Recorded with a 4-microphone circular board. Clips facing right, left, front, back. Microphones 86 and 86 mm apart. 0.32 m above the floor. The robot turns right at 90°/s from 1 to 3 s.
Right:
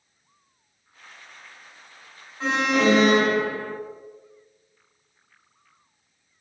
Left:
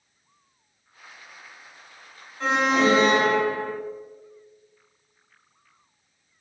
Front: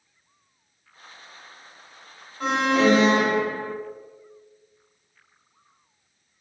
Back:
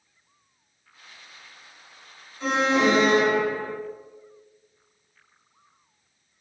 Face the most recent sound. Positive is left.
turn(degrees=40)